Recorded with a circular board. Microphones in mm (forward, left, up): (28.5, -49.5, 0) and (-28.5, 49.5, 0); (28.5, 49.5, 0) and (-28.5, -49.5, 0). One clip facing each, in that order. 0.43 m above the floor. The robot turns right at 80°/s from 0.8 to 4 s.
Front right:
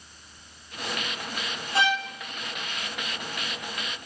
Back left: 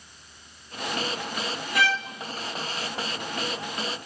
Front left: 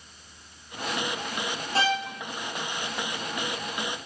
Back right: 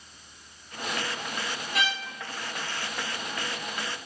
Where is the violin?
Straight ahead, 0.9 m; by 2.1 s 25° left, 0.9 m.